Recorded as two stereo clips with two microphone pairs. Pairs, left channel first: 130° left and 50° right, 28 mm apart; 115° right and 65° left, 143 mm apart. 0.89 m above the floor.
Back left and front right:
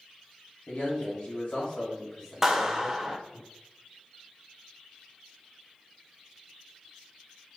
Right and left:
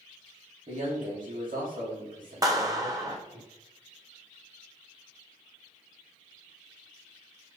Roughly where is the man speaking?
Left.